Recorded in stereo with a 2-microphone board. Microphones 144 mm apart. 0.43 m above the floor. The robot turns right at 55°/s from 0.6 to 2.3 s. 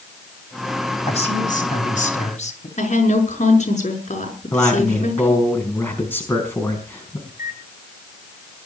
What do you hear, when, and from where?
1.1 s a man speaking: 50° left, 3.5 m; by 2.7 s 120° left, 3.5 m
2.8 s a woman speaking: 55° left (ahead or behind), 5 m
4.5 s a man speaking: 15° left (ahead or behind), 5 m
7.3 s a microwave: 70° left (ahead or behind), 6 m